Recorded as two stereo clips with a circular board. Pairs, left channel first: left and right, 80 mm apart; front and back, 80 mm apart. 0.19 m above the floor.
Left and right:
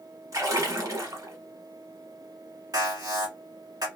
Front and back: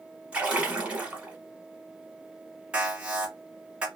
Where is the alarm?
110° right, 1.1 m.